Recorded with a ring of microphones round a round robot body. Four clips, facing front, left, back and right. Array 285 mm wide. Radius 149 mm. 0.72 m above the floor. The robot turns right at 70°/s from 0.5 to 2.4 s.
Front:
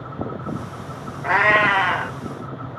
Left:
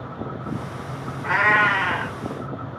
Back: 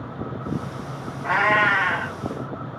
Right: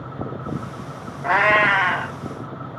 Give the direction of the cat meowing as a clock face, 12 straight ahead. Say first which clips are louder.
Right 2 dB, front 2 dB; 3 o'clock.